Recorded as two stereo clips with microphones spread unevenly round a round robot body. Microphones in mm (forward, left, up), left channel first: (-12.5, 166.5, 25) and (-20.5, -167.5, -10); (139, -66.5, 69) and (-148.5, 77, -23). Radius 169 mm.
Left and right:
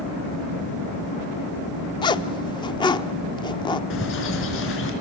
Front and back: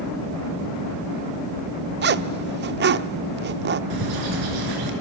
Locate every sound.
2.0 s a zipper: 170° left, 0.7 m
3.9 s a bird: 145° left, 4.5 m